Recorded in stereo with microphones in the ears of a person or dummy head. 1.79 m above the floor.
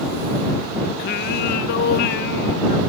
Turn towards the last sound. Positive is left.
turn(degrees=60)  # may be behind; listen again after turning